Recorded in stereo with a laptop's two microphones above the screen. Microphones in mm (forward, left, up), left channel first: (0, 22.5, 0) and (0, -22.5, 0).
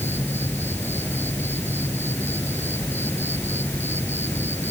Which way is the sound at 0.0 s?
50° left (ahead or behind).